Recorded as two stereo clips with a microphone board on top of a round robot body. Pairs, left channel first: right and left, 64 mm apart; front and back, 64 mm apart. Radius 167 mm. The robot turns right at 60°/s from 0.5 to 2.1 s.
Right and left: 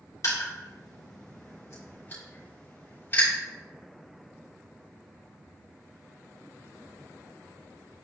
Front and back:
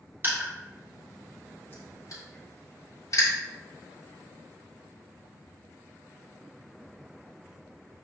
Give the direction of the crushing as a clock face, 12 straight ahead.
4 o'clock.